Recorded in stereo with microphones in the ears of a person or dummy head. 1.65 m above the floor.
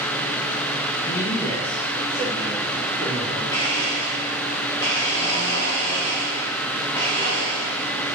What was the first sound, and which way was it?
A man speaking, 15° left (ahead or behind).